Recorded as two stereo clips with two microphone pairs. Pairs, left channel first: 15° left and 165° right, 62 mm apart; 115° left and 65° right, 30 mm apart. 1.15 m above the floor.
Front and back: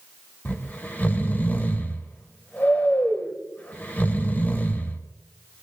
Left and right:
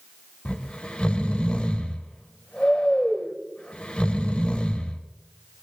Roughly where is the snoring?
Left.